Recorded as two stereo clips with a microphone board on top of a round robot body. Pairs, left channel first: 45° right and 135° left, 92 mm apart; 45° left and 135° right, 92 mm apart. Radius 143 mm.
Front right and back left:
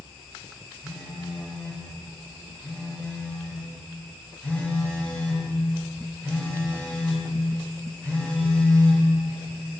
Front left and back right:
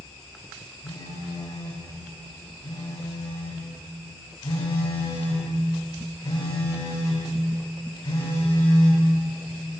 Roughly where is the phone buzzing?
Ahead left.